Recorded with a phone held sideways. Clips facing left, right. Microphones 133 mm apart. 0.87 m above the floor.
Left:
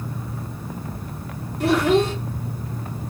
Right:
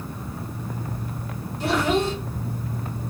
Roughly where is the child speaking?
Left.